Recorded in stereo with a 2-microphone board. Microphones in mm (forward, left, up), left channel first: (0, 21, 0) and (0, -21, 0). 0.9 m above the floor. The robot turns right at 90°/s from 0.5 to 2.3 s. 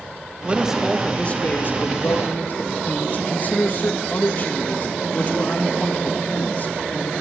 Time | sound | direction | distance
0.4 | a man speaking | 35° right | 1.4 m